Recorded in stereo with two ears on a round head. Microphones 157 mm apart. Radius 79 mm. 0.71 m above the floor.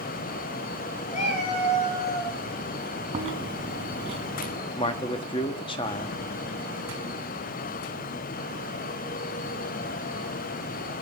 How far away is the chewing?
About 3 m.